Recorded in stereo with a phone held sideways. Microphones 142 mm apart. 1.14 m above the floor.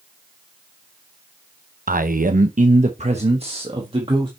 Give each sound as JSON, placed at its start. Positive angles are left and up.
{"t": 1.9, "sound": "a man speaking", "side_deg": -80, "distance_m": 0.7}